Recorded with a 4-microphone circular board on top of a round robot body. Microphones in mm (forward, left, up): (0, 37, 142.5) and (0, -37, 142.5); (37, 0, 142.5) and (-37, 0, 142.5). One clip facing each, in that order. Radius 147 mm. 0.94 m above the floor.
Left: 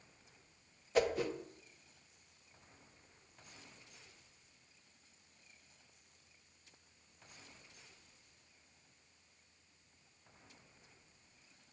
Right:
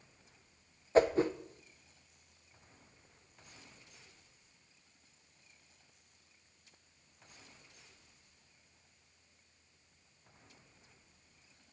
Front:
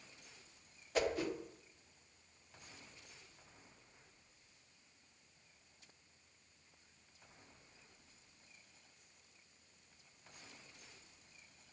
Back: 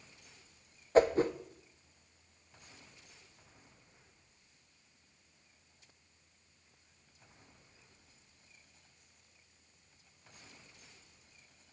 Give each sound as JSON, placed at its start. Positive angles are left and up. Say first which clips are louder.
{"t": 0.9, "sound": "a whoosh", "louder": "right 6 dB, back 10 dB", "azimuth_deg": -140, "distance_m": 0.7}